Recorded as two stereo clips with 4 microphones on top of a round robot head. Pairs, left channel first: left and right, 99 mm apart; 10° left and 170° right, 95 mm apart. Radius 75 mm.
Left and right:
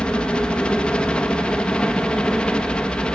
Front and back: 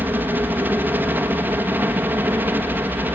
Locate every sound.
0.0 s a helicopter: 155° left